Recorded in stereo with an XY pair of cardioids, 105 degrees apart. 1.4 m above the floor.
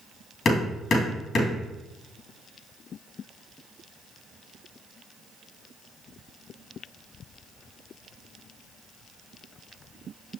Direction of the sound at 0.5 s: 55° left.